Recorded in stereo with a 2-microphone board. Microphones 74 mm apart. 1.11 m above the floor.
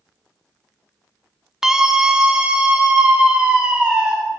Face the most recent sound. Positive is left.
turn(degrees=-15)  # may be behind; listen again after turning